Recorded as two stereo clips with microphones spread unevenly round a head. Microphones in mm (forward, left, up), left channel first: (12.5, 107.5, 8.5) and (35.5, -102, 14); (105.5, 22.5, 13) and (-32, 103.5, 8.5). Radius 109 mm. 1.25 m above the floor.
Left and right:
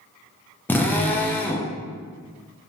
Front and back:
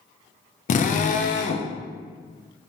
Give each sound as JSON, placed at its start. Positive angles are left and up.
{"t": 0.7, "sound": "a drill", "azimuth_deg": 15, "distance_m": 0.5}